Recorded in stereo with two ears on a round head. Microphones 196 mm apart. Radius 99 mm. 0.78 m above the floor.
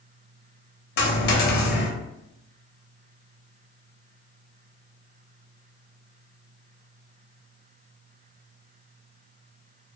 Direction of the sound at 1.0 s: 50° left (ahead or behind).